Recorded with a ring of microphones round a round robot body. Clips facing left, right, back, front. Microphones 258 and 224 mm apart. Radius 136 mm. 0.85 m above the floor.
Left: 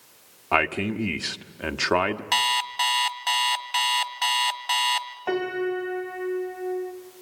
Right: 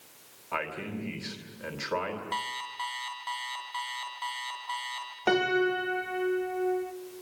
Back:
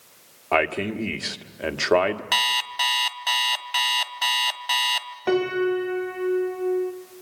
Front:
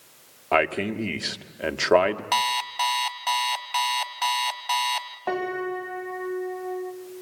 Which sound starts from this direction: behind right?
A piano, at 5.3 s.